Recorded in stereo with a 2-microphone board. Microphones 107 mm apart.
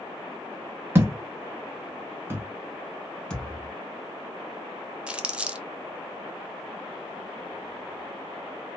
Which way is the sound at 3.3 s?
5° left (ahead or behind).